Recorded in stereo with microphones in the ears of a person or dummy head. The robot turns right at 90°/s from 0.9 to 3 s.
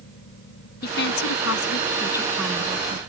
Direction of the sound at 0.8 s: 55° left.